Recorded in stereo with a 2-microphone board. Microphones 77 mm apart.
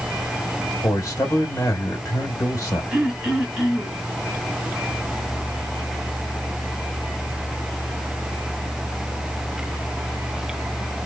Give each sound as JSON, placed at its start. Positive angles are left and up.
{"t": 0.8, "sound": "a man speaking", "side_deg": 50, "distance_m": 1.2}
{"t": 2.9, "sound": "throat clearing", "side_deg": -10, "distance_m": 1.1}